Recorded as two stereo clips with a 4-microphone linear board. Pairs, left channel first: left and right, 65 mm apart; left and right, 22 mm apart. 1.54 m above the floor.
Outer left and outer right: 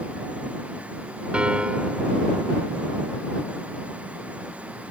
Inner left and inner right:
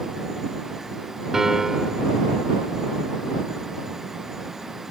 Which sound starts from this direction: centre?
A piano, at 1.3 s.